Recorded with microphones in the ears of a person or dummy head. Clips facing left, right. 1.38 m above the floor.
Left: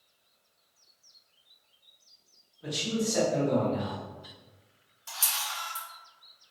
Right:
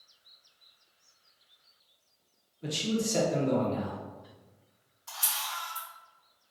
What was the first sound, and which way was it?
A man speaking, 40° right (ahead or behind).